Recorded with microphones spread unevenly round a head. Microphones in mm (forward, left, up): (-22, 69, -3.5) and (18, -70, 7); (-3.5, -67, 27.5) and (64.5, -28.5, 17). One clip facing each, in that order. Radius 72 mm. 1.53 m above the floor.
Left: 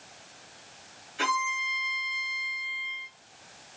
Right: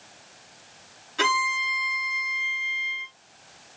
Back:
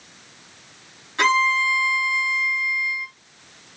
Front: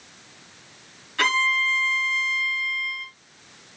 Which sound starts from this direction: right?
A violin, at 1.2 s.